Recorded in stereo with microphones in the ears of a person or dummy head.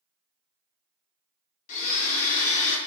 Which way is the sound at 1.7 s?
40° left (ahead or behind).